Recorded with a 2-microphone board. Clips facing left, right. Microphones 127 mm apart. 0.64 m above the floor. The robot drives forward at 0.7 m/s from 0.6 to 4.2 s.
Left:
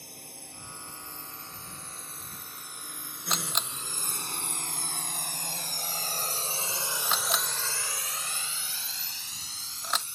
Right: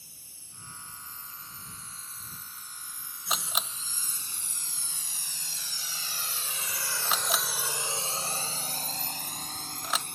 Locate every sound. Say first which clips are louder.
0.0 s a drone: left 14 dB; 80° left; by 10.2 s 65° right (ahead or behind)
3.3 s a camera shutter: even; 5° right (ahead or behind)